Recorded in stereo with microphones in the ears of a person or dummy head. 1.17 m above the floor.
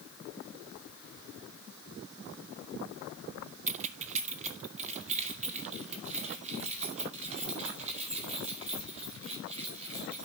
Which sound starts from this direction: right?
Keys jangling, at 3.7 s.